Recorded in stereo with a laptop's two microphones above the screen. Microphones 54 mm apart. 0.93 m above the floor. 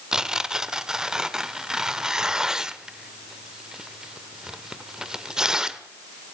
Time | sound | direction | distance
0.1 | tearing paper | 10° right (ahead or behind) | 1.0 m